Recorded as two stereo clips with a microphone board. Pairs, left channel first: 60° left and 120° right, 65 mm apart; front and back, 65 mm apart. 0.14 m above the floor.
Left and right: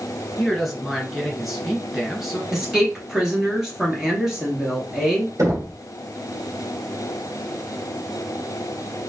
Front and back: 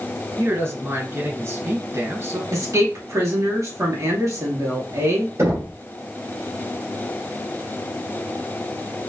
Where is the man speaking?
150° left, 1.5 m.